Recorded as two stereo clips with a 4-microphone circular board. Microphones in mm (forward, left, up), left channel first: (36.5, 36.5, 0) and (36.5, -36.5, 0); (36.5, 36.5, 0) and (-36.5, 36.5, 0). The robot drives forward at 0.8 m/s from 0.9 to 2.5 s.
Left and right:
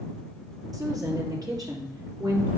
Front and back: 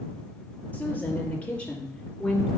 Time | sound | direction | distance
0.7 | a woman speaking | 65° right | 4.5 m